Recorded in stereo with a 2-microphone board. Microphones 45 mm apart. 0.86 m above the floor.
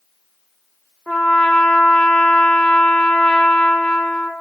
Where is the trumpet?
25° left (ahead or behind), 0.5 m.